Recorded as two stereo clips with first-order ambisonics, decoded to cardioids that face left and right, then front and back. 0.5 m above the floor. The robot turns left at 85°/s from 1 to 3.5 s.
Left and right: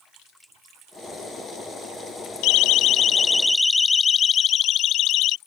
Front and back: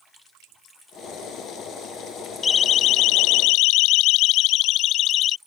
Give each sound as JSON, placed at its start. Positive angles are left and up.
{"t": 2.4, "sound": "a siren", "azimuth_deg": 70}